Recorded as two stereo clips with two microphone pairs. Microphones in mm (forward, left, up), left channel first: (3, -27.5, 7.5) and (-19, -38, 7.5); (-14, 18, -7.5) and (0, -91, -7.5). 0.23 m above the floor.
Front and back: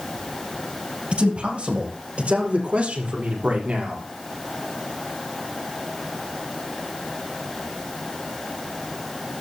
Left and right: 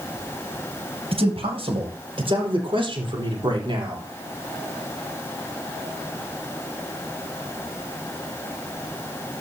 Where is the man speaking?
115° right, 5.5 m; by 4.0 s 130° right, 6 m.